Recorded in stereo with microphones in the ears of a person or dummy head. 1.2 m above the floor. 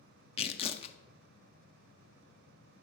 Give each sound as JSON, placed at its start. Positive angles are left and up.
{"t": 0.4, "sound": "tearing paper", "side_deg": 30, "distance_m": 0.5}